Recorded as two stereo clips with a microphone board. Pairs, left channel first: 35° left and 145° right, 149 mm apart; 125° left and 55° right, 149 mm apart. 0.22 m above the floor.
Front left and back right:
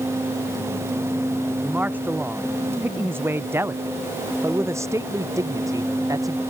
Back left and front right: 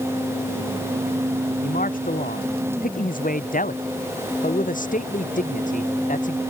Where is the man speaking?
135° left; by 6.4 s 150° left.